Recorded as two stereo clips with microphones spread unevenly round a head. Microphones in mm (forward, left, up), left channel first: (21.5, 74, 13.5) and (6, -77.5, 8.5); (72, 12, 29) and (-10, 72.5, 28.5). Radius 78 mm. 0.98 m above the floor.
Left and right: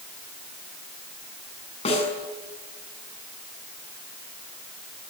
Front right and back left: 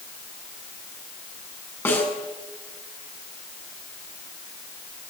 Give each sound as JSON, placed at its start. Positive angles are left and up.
{"t": 1.9, "sound": "a snare drum", "azimuth_deg": 30, "distance_m": 7.0}